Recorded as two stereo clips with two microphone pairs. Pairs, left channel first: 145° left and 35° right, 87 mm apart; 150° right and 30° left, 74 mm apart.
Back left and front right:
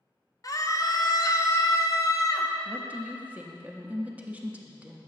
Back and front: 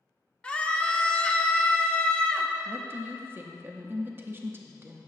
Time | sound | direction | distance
0.4 | a scream | 140° left | 0.6 m
2.6 | a woman speaking | 20° left | 0.7 m